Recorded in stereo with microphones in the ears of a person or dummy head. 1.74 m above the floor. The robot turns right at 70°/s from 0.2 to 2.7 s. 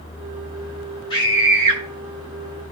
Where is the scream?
160° left, 7.5 m; by 1.8 s 150° right, 7.5 m.